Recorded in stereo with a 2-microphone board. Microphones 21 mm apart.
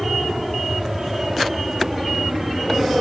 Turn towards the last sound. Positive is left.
turn(degrees=-25)  # may be behind; listen again after turning